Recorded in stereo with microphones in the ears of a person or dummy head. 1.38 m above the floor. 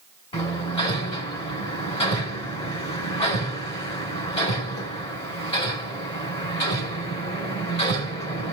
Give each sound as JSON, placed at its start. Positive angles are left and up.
{"t": 0.3, "sound": "hammering", "side_deg": 25, "distance_m": 3.0}